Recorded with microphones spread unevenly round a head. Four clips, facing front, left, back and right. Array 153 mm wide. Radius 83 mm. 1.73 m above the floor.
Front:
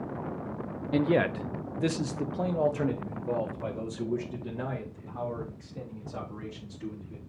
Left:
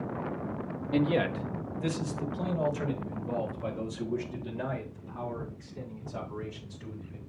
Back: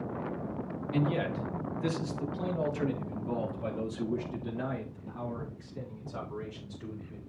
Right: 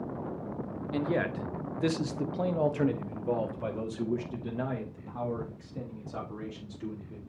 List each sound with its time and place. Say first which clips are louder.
0.9 s a man speaking: left 3 dB, front 6 dB; 20° left, 0.8 m; by 7.2 s 65° right, 5 m